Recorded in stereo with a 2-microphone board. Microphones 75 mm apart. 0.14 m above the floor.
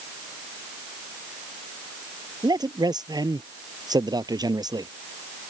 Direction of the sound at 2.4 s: 65° right (ahead or behind).